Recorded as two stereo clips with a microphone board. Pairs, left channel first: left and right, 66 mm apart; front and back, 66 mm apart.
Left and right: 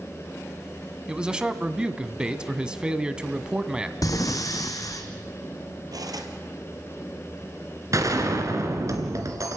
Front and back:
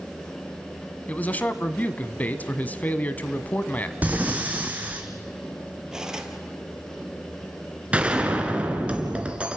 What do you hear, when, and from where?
1.1 s a man speaking: 30° right, 1.1 m
4.0 s breathing: 115° left, 1.8 m
5.9 s cutlery clinking: 100° right, 2.5 m
7.9 s a gunshot: 110° right, 2.5 m